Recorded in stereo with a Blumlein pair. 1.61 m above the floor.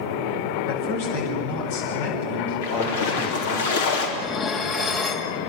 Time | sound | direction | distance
0.7 | a man speaking | 55° left | 8.5 m
2.6 | a splash | 55° left | 4 m
4.2 | dishes clattering | 25° left | 2 m